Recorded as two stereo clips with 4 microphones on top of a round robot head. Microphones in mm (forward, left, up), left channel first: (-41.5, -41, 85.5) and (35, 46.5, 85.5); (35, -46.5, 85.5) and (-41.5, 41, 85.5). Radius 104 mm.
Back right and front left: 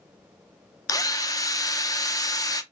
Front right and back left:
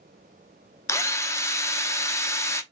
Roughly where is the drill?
Right.